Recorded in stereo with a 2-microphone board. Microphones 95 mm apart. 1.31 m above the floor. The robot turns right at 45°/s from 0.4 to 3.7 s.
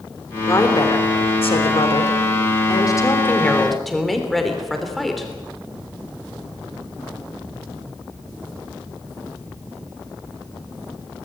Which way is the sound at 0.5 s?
35° left.